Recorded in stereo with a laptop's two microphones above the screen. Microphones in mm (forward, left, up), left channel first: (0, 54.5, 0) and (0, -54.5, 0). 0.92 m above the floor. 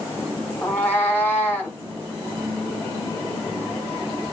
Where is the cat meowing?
15° left (ahead or behind), 2.5 m.